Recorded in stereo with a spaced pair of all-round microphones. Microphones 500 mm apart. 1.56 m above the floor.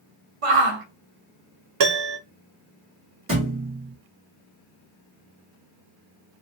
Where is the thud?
25° right (ahead or behind), 1.2 m.